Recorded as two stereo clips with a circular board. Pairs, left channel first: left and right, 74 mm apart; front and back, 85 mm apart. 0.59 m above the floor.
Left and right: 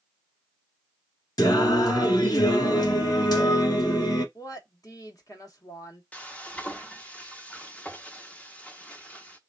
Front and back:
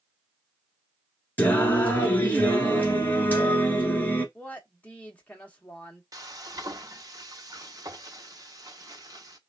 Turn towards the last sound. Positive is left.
turn(degrees=155)